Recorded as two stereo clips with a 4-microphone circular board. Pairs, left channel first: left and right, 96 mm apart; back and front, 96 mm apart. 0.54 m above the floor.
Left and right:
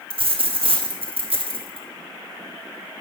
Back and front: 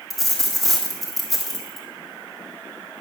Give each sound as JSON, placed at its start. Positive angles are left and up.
{"t": 0.1, "sound": "a dropped coin", "azimuth_deg": -90, "distance_m": 1.8}